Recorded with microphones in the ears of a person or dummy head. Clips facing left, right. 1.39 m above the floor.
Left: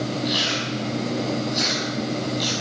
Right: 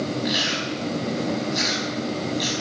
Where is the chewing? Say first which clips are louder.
Even; 30° right (ahead or behind), 5.5 m.